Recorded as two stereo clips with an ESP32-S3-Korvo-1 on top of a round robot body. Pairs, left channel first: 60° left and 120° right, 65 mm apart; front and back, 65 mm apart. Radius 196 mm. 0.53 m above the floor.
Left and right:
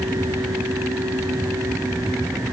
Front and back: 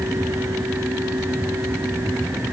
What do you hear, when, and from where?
Only background noise.